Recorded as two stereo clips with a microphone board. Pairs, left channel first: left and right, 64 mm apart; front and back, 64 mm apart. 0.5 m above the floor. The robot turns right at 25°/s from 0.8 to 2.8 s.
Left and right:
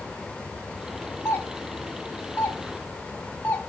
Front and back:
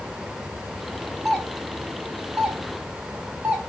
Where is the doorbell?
95° left, 1.3 m; by 3.6 s 135° left, 1.3 m.